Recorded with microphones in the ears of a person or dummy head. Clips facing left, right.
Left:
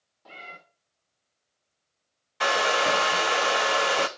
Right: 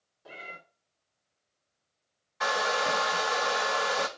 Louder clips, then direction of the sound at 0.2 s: Even; 10° right (ahead or behind).